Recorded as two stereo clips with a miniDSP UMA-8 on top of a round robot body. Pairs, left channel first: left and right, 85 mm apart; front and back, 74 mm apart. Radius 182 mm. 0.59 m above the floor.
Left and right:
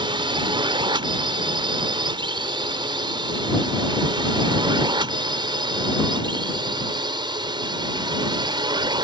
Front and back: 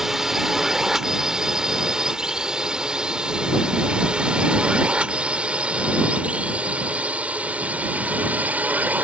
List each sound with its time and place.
0.0 s a drone: 95° right; by 9.0 s 115° right